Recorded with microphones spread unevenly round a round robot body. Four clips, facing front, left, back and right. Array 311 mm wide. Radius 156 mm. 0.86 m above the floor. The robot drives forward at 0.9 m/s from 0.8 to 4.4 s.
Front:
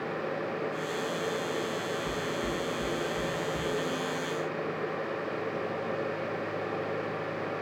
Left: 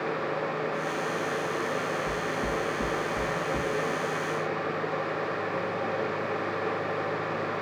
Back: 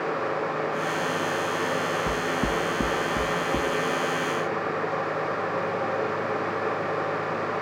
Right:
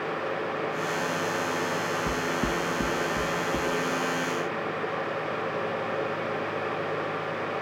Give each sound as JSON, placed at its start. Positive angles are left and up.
{"t": 2.1, "sound": "knocking", "azimuth_deg": -130, "distance_m": 0.8}